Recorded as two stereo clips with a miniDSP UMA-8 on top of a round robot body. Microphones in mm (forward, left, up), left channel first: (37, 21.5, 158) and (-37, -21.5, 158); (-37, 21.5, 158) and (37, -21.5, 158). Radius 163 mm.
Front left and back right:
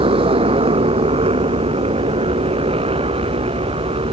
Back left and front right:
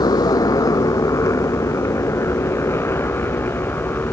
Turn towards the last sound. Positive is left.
turn(degrees=-140)